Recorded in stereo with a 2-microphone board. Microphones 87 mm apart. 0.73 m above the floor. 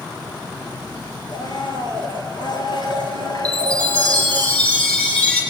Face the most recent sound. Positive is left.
turn(degrees=15)  # may be behind; listen again after turning